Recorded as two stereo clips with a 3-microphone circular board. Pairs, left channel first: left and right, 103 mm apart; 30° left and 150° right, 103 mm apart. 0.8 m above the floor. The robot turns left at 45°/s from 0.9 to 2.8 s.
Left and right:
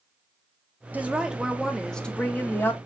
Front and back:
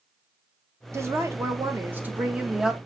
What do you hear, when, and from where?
0.9 s a woman speaking: 150° right, 0.9 m; by 2.8 s 130° left, 0.9 m